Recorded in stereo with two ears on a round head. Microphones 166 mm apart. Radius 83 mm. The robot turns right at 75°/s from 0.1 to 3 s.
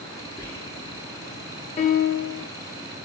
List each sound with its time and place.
0.4 s whispering: 15° left (ahead or behind), 0.8 m; by 1.1 s 5° right (ahead or behind), 0.8 m
1.8 s a piano: 30° left, 0.5 m; by 2.5 s 85° left, 0.5 m